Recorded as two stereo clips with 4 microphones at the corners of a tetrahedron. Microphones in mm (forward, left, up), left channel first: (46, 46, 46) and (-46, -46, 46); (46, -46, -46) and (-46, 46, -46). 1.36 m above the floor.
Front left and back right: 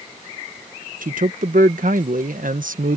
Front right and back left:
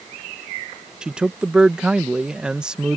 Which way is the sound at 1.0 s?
140° right.